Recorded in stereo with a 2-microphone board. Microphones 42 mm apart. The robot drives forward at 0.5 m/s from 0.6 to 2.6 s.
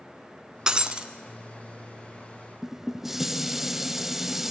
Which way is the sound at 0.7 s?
20° right (ahead or behind).